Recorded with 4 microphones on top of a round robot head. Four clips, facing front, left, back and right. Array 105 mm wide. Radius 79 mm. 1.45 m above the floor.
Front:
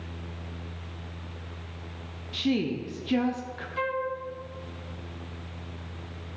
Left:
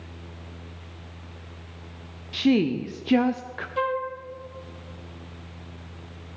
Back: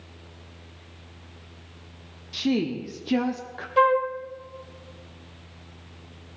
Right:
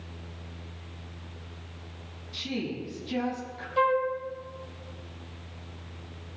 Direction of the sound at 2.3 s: 110° left.